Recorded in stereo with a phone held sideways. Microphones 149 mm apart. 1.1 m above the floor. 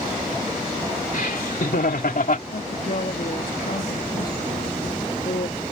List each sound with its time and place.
1.1 s laughter: 75° left (ahead or behind); by 2.4 s 65° left (ahead or behind)
2.5 s a woman speaking: 70° left (ahead or behind)